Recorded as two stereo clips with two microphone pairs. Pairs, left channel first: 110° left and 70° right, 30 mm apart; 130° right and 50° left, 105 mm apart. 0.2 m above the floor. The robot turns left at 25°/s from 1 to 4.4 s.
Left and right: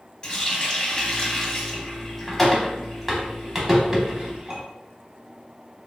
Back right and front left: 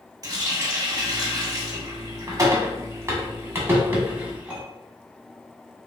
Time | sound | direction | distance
0.2 | a running tap | 60° left | 0.8 m